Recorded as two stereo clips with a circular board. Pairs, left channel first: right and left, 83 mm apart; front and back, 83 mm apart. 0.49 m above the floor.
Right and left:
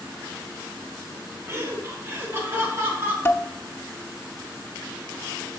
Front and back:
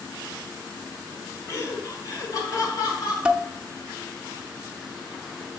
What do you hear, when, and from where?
1.5 s laughter: 40° left, 1.2 m; by 3.1 s 30° left, 2 m
3.2 s dishes clattering: 115° right, 0.5 m